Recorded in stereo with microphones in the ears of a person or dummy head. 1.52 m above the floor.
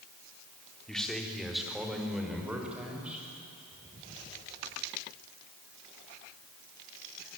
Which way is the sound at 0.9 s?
5° left (ahead or behind).